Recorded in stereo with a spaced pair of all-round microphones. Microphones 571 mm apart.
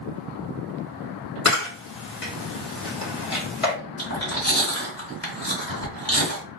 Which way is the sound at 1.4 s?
65° left (ahead or behind).